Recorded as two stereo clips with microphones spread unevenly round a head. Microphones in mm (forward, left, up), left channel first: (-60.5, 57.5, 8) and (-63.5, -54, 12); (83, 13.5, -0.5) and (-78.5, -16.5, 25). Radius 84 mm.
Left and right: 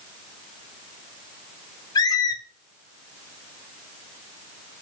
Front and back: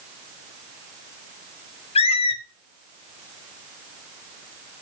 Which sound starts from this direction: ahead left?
A squeak, at 1.9 s.